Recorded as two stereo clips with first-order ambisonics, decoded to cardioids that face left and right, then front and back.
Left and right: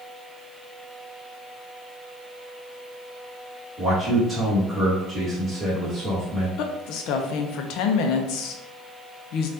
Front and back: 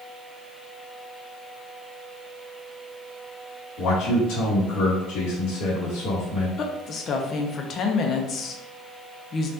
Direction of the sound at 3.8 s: 20° right.